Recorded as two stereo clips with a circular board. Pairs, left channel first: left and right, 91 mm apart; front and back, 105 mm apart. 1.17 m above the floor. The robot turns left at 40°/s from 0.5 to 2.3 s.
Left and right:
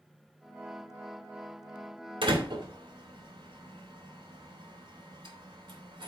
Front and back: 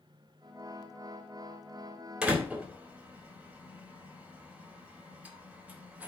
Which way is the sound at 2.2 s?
100° right.